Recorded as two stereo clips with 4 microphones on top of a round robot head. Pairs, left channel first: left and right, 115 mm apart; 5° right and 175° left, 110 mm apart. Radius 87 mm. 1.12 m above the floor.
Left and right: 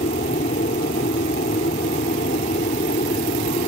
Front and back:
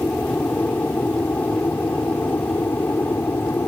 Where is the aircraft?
70° left; by 3.7 s 65° left.